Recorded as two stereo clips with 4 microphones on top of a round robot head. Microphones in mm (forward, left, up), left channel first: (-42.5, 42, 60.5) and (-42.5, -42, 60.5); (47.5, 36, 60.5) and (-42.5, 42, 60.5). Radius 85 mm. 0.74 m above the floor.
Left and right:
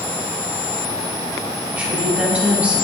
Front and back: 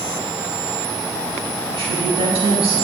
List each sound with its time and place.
1.7 s a woman speaking: 160° right, 5.5 m